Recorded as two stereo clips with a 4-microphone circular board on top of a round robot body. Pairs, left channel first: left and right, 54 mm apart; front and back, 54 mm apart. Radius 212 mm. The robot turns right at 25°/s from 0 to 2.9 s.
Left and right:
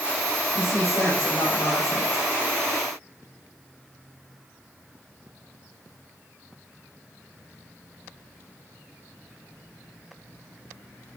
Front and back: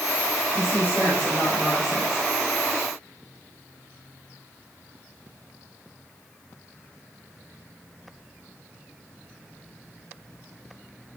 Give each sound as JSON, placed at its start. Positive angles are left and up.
{"t": 0.5, "sound": "a woman speaking", "azimuth_deg": 45, "distance_m": 5.0}